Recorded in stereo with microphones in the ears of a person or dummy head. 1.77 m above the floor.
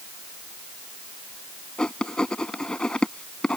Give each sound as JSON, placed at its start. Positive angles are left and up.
{"t": 1.8, "sound": "writing", "side_deg": 5}